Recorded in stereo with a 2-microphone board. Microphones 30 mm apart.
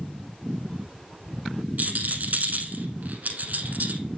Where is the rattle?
65° right (ahead or behind), 1.0 m.